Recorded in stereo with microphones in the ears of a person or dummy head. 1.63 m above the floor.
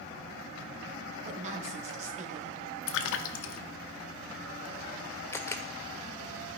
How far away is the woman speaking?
About 1.5 m.